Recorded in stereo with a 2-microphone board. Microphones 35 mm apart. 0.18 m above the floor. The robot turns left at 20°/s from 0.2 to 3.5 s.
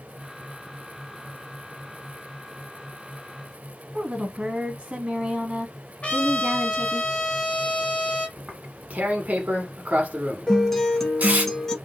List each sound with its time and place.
3.9 s a woman speaking: 25° right (ahead or behind), 1.3 m
6.0 s a trumpet: 35° left (ahead or behind), 1.3 m
8.4 s tearing paper: 45° right (ahead or behind), 1.1 m
10.5 s a guitar: 10° left (ahead or behind), 1.2 m